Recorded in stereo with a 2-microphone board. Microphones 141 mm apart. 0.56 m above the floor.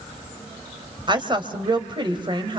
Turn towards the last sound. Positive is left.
turn(degrees=-35)  # may be behind; listen again after turning